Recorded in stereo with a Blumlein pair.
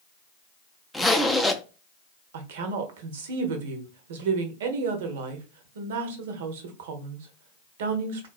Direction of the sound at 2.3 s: 55° right.